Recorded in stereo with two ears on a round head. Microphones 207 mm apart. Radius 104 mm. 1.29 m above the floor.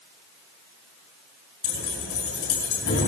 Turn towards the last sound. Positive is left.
turn(degrees=55)  # may be behind; listen again after turning